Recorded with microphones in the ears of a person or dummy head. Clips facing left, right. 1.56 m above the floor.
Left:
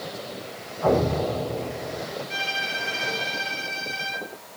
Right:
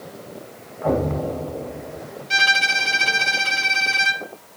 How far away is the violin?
About 1.0 m.